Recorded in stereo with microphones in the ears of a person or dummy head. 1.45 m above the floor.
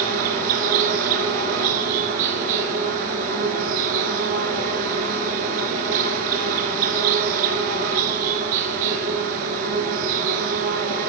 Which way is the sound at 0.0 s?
45° right (ahead or behind).